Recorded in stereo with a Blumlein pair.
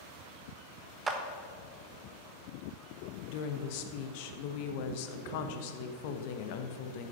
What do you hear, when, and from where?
1.1 s a clap: 15° right, 1.3 m
3.3 s a woman speaking: 45° left, 1.2 m